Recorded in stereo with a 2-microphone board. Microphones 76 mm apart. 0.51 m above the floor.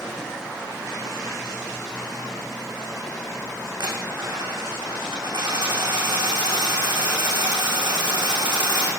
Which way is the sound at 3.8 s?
80° right.